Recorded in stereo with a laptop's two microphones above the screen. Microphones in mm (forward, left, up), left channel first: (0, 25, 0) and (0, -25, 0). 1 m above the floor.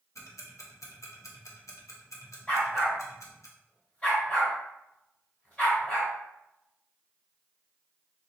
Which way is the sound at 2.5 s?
25° left (ahead or behind).